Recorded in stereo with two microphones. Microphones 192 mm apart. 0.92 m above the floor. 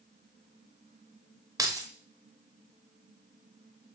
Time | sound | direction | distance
1.6 | keys jangling | 20° right (ahead or behind) | 0.5 m